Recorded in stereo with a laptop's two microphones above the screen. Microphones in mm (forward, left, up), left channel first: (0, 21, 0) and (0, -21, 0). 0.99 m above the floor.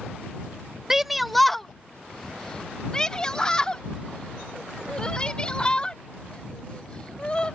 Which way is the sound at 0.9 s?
10° right (ahead or behind).